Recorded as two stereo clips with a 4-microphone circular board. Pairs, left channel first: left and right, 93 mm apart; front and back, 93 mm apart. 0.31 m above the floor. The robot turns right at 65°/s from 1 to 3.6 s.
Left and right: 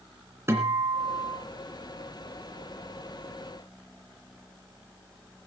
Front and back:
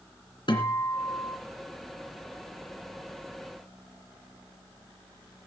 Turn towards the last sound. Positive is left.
turn(degrees=140)